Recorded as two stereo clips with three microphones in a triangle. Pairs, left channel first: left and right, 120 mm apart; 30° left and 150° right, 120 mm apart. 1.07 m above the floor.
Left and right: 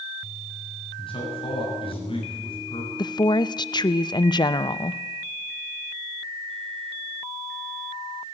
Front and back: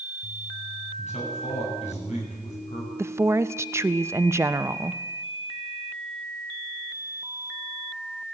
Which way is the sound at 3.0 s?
145° left.